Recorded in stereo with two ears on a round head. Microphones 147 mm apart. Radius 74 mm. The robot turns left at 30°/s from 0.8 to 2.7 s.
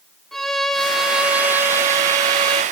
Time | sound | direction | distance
0.3 | a violin | straight ahead | 0.9 m